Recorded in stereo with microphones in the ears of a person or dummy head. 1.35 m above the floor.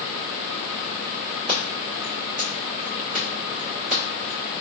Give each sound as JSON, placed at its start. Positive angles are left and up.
{"t": 1.5, "sound": "scissors", "side_deg": -40, "distance_m": 1.5}